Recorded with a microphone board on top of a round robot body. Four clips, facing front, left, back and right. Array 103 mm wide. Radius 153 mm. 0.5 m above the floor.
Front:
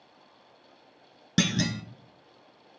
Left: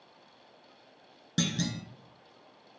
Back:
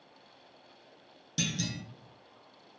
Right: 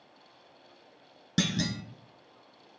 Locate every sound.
1.4 s a clunk: 10° right, 0.5 m